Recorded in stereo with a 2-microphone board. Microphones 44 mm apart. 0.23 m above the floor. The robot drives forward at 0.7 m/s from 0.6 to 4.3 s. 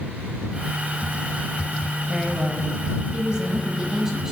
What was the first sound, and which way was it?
A woman speaking, 20° right (ahead or behind).